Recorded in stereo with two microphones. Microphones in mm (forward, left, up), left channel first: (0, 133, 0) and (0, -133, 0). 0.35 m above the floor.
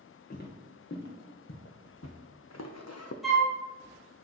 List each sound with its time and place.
0.3 s footsteps: 40° left (ahead or behind), 2.0 m; by 3.1 s 70° left (ahead or behind), 0.9 m
3.2 s a flute: centre (ahead or behind), 1.7 m